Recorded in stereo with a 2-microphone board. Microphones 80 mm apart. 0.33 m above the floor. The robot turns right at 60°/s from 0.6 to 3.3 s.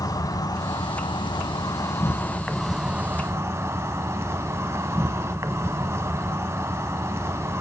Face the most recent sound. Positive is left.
turn(degrees=-140)